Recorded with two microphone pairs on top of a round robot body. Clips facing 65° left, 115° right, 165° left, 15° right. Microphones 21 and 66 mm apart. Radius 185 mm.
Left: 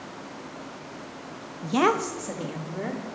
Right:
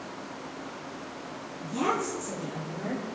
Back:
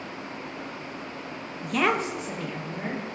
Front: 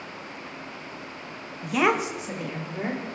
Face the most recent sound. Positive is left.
turn(degrees=50)